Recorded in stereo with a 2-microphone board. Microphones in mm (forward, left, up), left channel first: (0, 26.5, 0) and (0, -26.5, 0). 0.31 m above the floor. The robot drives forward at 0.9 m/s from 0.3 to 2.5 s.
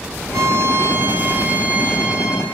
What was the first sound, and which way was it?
A violin, 75° right (ahead or behind).